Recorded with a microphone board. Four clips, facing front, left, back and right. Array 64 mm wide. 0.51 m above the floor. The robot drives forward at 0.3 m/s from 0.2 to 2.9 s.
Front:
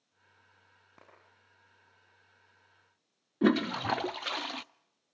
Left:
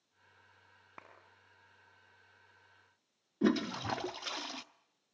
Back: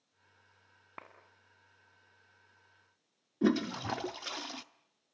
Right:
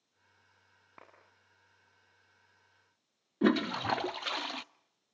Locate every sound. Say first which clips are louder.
1.0 s a clap: left 2 dB, back 10 dB; 170° left, 4.5 m
3.4 s a toilet flushing: right 3 dB, front 3 dB; 45° right, 0.6 m